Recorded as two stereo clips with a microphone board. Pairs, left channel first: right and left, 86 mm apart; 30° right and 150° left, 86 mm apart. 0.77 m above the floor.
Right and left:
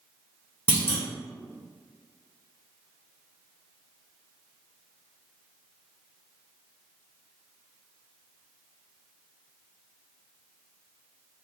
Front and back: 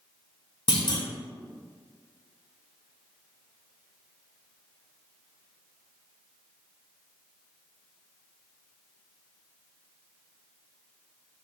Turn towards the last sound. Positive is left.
turn(degrees=-35)